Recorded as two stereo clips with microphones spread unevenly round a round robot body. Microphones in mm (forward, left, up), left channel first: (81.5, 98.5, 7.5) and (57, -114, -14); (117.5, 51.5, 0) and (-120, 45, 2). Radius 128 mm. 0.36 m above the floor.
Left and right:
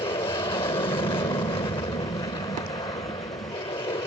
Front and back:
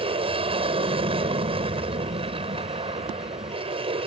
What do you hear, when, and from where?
0.0 s an aircraft: 140° left